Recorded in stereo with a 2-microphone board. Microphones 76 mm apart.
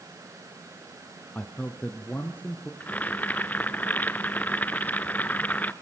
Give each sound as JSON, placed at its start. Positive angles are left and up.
{"t": 1.4, "sound": "a man speaking", "side_deg": 15, "distance_m": 1.3}
{"t": 2.8, "sound": "boiling", "side_deg": 20, "distance_m": 0.8}